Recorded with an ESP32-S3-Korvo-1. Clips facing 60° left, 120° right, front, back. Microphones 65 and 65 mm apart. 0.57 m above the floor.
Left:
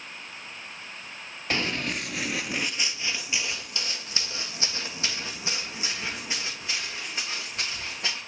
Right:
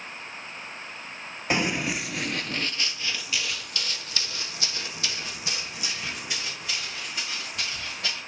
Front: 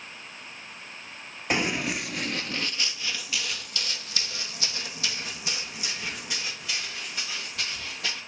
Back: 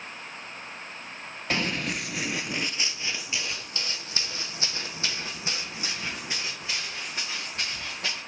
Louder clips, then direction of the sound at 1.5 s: Right 3 dB, front 2 dB; 65° right.